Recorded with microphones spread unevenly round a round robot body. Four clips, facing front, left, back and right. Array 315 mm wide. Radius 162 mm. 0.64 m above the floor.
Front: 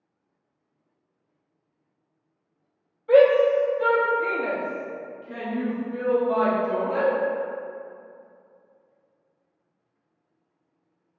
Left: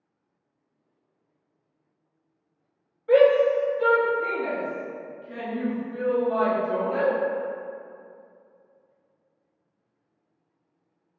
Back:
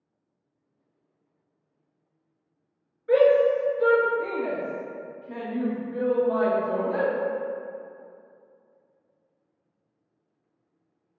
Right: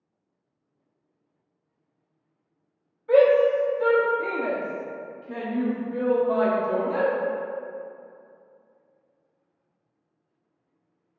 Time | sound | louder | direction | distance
3.1 | a shout | even, front 2 dB | 135° left | 0.9 m